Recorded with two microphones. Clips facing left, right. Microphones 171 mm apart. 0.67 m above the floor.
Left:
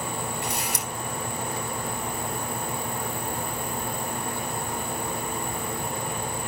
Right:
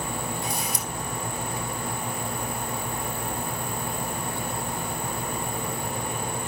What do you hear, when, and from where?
0.4 s a camera shutter: 70° left (ahead or behind), 3 m